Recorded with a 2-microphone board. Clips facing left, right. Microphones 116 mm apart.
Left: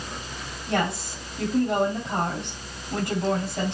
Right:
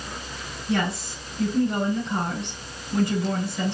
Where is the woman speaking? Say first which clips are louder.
Even; 80° left, 5.5 m.